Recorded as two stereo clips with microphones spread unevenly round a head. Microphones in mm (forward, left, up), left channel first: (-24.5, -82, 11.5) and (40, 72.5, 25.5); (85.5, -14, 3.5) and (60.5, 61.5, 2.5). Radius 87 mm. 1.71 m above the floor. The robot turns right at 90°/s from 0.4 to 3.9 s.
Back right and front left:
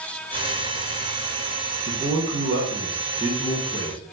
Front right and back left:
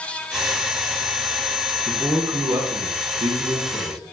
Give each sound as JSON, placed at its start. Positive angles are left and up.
{"t": 1.9, "sound": "a man speaking", "azimuth_deg": 15, "distance_m": 0.6}